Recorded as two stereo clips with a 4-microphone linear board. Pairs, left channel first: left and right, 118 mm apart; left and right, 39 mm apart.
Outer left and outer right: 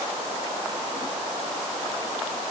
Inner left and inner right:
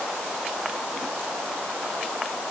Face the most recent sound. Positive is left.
No sound to turn to.